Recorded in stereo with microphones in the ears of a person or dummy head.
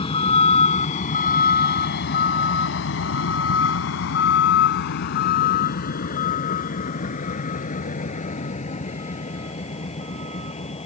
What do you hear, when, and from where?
0.0 s a vehicle: 35° left (ahead or behind); by 10.9 s 30° left (ahead or behind)